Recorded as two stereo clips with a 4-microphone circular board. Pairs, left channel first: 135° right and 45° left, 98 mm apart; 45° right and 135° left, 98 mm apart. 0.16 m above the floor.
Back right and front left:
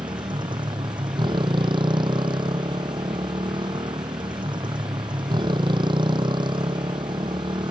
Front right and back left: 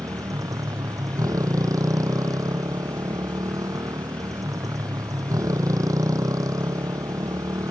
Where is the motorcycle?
80° left.